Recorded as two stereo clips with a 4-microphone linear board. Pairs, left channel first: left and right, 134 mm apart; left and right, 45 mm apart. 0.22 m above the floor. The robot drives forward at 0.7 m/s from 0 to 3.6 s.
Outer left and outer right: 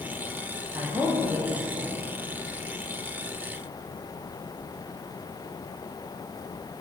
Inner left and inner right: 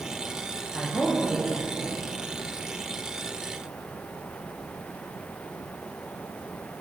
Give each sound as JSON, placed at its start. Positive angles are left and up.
{"t": 0.8, "sound": "a man speaking", "side_deg": -15, "distance_m": 8.5}